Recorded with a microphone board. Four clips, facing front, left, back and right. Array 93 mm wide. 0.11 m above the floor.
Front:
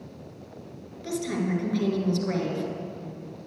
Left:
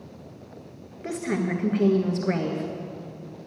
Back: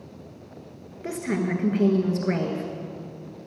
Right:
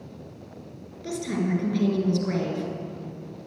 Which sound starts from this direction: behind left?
A woman speaking, at 1.0 s.